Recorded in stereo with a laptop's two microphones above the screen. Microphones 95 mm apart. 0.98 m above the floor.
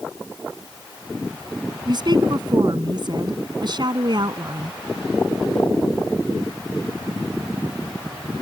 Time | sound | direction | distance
1.9 | a woman speaking | 50° right (ahead or behind) | ?